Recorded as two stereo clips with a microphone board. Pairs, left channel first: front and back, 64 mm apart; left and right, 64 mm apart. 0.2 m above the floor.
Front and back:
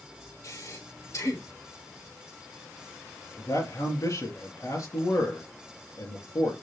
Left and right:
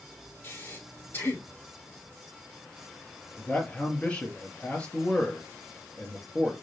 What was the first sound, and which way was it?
Breathing, 35° left.